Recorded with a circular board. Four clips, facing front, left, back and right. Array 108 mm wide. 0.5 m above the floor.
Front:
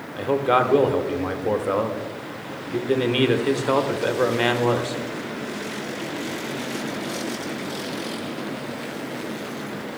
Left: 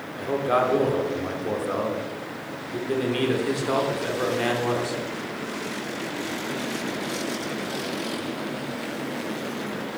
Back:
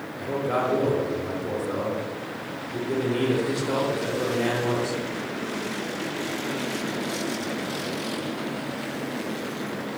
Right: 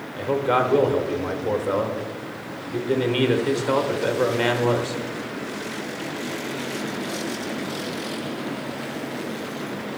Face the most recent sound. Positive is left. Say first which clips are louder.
# right 2 dB, front 6 dB
turn(degrees=-10)